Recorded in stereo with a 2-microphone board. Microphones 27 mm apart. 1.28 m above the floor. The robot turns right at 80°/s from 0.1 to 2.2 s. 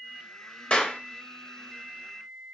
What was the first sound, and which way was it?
A clap, 40° left (ahead or behind).